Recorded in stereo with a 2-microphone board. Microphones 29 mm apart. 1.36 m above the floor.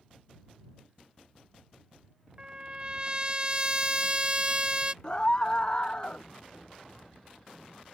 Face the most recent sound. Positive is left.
turn(degrees=30)  # may be behind; listen again after turning